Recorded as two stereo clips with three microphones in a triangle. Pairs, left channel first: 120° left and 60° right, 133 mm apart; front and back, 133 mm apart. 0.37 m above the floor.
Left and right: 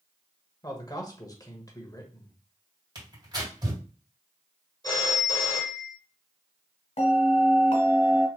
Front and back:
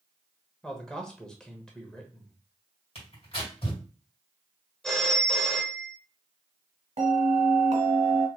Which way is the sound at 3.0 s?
20° right.